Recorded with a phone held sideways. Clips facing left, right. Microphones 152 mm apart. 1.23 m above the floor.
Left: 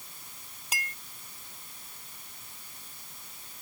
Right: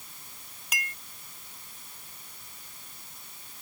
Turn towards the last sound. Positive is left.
turn(degrees=30)  # may be behind; listen again after turning